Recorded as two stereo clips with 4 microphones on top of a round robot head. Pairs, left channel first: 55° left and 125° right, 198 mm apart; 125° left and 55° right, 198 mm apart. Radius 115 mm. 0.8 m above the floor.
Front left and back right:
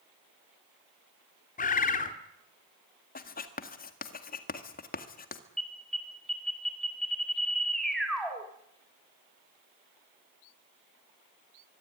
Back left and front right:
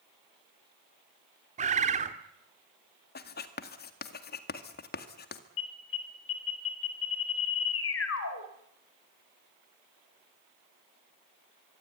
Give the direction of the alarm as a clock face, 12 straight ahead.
7 o'clock.